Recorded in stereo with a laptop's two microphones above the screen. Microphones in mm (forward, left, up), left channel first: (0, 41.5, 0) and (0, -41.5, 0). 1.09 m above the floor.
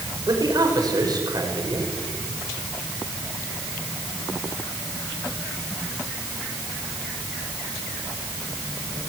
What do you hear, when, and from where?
0.3 s a man speaking: 55° right (ahead or behind), 5.5 m